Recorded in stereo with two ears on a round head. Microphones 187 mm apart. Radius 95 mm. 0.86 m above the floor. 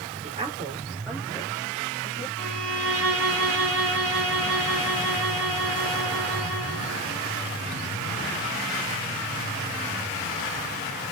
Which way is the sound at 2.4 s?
5° left (ahead or behind).